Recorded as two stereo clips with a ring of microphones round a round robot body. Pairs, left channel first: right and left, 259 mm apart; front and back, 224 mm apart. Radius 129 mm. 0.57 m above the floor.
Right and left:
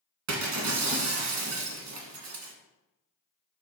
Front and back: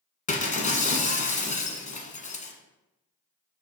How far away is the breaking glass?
About 1.7 m.